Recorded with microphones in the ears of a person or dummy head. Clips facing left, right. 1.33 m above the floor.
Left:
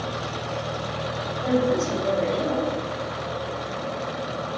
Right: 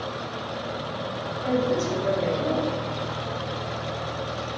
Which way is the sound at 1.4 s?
15° left (ahead or behind).